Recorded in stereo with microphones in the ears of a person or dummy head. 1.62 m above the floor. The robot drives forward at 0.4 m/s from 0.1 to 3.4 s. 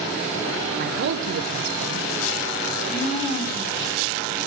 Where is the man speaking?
55° right (ahead or behind), 0.9 m; by 2.1 s 75° right (ahead or behind), 0.7 m.